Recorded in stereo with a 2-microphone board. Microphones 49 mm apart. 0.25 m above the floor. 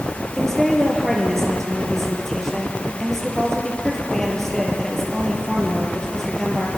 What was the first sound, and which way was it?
A woman speaking, 10° left (ahead or behind).